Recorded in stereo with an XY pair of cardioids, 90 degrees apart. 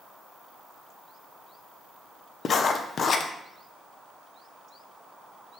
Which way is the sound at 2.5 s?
50° left.